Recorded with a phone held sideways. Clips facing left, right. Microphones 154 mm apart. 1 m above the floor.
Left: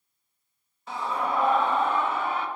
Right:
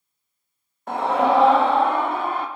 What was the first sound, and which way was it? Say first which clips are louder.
A scream: right 10 dB; 55° right (ahead or behind).